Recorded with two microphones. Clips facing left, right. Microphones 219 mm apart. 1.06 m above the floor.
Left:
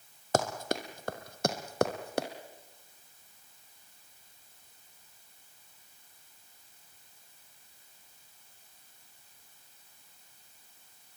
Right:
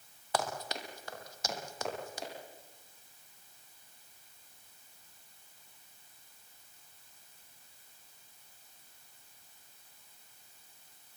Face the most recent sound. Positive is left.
turn(degrees=65)  # may be behind; listen again after turning